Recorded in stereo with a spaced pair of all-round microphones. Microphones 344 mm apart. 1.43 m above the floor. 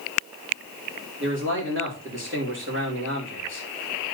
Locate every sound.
1.2 s a man speaking: 35° right (ahead or behind), 5 m